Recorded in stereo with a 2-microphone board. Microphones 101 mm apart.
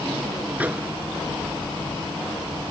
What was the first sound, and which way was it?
A microwave, 15° right (ahead or behind).